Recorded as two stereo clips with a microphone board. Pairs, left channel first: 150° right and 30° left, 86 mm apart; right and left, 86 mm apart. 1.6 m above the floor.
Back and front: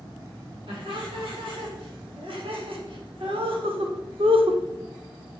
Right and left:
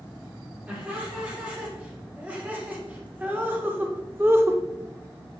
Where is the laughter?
20° left, 4 m; by 4.6 s 30° left, 0.7 m.